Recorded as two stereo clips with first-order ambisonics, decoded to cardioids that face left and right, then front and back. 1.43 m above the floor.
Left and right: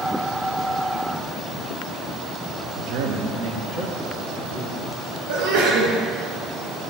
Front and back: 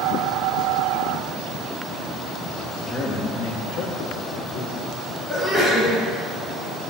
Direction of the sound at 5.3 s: 90° right.